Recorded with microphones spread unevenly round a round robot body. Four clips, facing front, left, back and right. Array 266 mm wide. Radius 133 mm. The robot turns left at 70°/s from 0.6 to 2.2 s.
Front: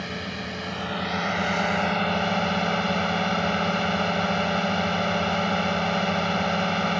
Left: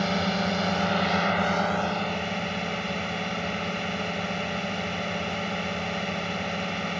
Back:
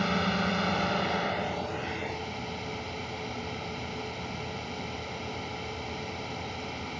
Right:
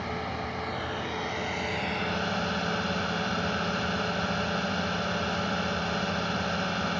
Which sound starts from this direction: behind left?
A drone, at 0.0 s.